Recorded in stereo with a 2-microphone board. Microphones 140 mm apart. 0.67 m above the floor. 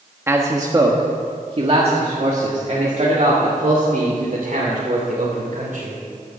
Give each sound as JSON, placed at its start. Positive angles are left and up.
{"t": 0.3, "sound": "a man speaking", "side_deg": -20, "distance_m": 1.2}